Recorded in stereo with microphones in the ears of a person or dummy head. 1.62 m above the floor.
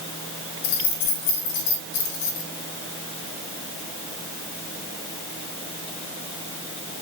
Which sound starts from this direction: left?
Keys jangling, at 0.6 s.